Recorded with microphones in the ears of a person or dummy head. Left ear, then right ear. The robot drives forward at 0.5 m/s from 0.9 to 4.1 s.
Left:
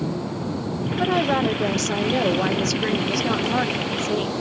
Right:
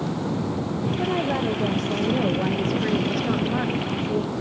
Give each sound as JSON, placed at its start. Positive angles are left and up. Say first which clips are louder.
{"t": 1.0, "sound": "a woman speaking", "louder": "left 5 dB", "side_deg": 45, "distance_m": 1.6}